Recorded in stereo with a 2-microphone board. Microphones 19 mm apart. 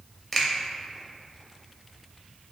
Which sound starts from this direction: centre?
A finger snap, at 0.3 s.